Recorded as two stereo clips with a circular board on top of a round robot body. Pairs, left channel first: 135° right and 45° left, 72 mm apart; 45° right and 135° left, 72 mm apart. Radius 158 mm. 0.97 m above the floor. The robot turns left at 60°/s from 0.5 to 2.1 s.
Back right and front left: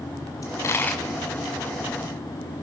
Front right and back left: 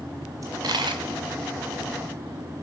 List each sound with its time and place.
0.4 s a dropped coin: straight behind, 1.3 m; by 1.1 s 150° left, 1.3 m